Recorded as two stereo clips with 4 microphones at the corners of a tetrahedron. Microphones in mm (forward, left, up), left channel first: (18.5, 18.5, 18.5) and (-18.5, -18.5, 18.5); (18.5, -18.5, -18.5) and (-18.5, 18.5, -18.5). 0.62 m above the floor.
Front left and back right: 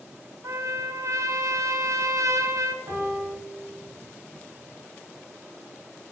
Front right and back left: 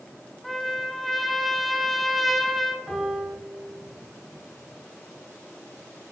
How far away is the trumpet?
About 0.7 m.